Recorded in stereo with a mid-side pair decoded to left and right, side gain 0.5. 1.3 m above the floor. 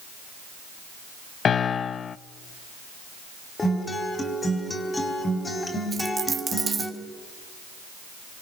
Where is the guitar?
25° left, 4 m.